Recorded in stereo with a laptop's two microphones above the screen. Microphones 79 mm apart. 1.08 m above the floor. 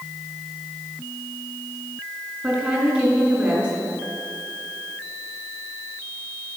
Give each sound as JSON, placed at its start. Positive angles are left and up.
{"t": 2.4, "sound": "a woman speaking", "side_deg": -25, "distance_m": 2.5}